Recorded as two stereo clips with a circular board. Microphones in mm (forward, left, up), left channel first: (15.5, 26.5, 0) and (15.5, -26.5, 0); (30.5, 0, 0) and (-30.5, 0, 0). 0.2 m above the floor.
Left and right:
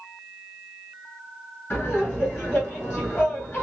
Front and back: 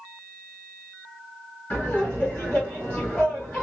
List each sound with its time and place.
1.7 s laughter: 55° left, 1.9 m